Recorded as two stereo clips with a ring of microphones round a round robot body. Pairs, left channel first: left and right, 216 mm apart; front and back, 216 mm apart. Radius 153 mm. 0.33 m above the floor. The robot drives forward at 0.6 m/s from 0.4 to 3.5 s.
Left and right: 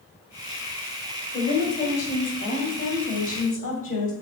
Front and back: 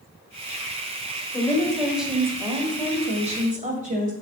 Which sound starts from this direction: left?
A woman speaking, at 1.3 s.